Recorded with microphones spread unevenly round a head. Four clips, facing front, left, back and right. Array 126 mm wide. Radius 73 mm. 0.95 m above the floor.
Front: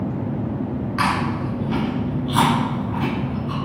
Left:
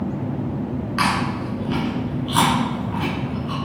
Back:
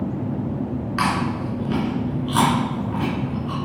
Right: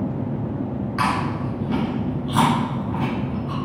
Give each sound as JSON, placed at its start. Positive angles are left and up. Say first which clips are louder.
{"t": 1.0, "sound": "chewing", "louder": "left 1 dB, front 1 dB", "azimuth_deg": -145, "distance_m": 3.0}